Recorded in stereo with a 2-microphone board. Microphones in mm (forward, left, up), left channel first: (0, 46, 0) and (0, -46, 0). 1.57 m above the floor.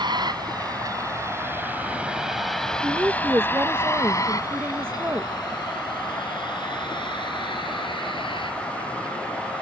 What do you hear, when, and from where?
0.0 s a vehicle: 55° right (ahead or behind); by 9.6 s 65° left (ahead or behind)
2.8 s a woman speaking: 30° right (ahead or behind)